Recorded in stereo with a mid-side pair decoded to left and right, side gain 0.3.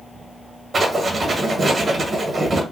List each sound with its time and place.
0.7 s writing: 50° right, 1.2 m